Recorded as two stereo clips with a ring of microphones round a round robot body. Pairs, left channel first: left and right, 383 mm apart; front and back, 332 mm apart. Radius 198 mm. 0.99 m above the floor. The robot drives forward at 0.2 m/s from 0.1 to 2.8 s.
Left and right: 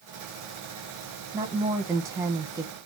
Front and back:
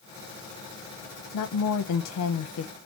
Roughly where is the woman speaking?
Ahead.